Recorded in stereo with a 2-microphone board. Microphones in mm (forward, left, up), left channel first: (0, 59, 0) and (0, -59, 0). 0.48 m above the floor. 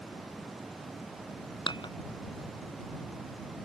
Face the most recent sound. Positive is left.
turn(degrees=40)  # may be behind; listen again after turning